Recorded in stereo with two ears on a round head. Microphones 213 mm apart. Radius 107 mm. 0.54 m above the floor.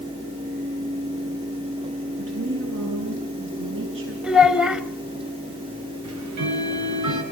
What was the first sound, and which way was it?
A woman speaking, 55° right (ahead or behind).